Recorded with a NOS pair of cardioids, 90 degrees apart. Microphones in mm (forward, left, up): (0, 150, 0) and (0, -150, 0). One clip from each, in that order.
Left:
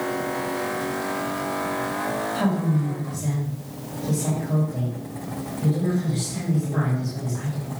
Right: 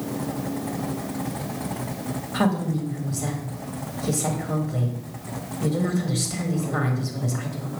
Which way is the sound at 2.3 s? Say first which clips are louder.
Even; 55° right.